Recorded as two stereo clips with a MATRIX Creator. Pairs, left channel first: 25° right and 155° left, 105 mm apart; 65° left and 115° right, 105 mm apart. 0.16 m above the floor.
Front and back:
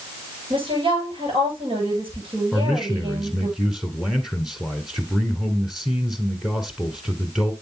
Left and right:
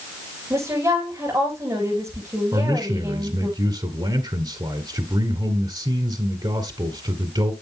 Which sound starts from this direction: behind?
A woman speaking, at 0.5 s.